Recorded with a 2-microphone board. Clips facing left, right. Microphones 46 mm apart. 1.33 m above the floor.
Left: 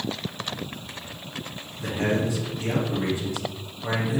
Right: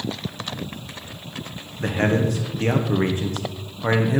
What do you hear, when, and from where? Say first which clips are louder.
1.8 s a man speaking: right 4 dB; 50° right (ahead or behind), 0.9 m